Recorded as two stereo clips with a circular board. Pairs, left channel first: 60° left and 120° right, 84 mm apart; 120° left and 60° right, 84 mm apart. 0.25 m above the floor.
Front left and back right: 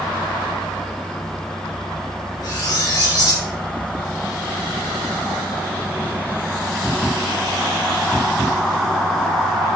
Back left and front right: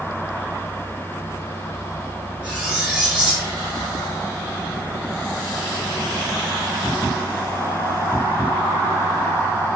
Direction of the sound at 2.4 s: 20° left.